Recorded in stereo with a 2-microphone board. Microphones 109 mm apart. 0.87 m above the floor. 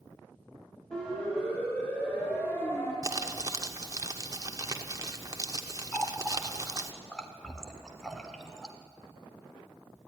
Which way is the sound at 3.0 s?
30° right (ahead or behind).